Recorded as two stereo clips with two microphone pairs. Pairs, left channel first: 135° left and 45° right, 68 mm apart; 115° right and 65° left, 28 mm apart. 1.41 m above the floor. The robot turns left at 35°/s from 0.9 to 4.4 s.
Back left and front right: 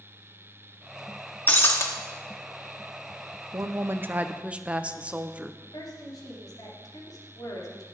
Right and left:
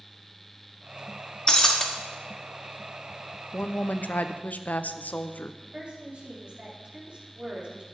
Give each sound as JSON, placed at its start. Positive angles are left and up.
{"t": 1.5, "sound": "breaking glass", "azimuth_deg": -170, "distance_m": 1.4}
{"t": 3.5, "sound": "a woman speaking", "azimuth_deg": -90, "distance_m": 0.7}
{"t": 5.6, "sound": "a woman speaking", "azimuth_deg": 115, "distance_m": 3.5}